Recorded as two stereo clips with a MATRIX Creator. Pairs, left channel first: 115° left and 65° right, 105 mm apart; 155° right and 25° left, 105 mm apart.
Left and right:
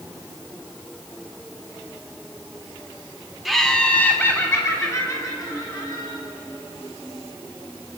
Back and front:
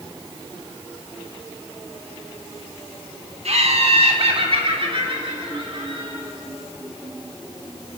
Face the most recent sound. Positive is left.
turn(degrees=60)